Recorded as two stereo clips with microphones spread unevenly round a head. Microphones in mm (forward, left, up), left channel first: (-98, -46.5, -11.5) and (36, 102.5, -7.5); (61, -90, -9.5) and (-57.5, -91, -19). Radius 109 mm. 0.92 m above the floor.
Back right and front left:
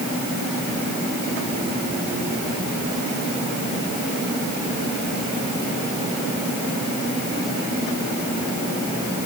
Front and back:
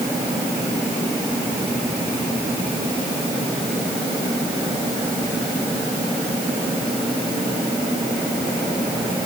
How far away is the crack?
No crack in this recording.